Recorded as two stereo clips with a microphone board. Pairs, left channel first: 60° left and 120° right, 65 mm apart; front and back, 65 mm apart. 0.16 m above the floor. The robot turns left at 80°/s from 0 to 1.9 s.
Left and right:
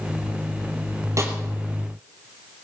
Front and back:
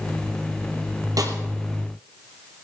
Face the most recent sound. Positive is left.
turn(degrees=145)